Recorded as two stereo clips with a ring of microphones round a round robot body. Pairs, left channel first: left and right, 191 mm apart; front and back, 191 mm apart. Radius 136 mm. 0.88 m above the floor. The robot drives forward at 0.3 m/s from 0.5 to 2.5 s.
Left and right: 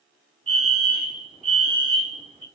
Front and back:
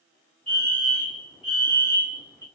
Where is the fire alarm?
75° right, 1.9 m; by 2.5 s 110° right, 2.0 m.